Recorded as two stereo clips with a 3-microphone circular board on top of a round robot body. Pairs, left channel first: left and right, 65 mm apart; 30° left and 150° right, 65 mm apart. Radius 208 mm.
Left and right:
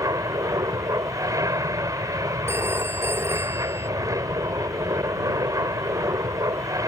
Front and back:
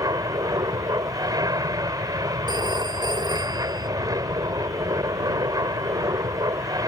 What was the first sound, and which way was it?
An aircraft, 125° right.